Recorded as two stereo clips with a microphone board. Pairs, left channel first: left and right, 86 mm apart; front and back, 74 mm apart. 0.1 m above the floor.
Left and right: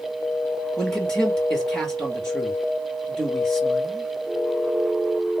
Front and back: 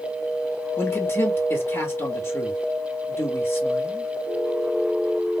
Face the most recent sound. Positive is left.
turn(degrees=15)